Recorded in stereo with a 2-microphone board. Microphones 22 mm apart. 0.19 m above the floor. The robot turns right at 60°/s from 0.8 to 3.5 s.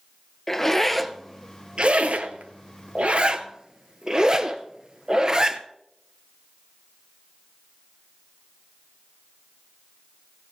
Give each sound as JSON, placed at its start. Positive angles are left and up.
{"t": 0.5, "sound": "a zipper", "side_deg": 10, "distance_m": 0.6}